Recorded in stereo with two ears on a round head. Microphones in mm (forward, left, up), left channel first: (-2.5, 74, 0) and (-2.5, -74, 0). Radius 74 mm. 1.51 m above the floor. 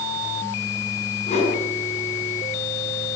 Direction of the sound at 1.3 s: 40° left (ahead or behind).